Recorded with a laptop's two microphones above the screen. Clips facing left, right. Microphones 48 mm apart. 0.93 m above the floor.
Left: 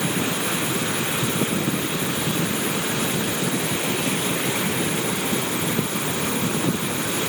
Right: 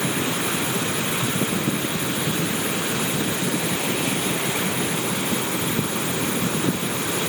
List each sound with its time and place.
Only background noise.